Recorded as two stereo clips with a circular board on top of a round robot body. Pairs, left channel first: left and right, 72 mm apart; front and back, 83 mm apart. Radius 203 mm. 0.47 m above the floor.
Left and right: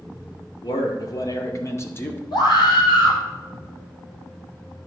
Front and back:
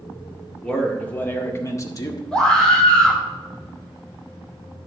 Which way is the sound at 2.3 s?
80° left.